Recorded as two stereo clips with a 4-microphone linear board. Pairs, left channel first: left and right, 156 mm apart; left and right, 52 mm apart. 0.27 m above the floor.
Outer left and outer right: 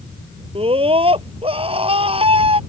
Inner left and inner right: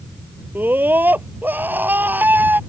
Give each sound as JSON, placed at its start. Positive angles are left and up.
{"t": 0.6, "sound": "a scream", "side_deg": -35}